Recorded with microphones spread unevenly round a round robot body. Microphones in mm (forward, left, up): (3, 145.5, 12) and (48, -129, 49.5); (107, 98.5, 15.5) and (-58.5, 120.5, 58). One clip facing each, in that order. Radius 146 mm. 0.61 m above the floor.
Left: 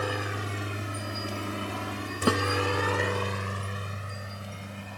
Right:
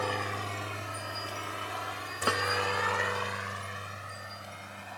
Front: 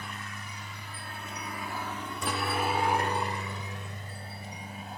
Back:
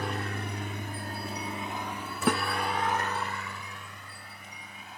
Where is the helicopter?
175° left; by 5.0 s 40° left.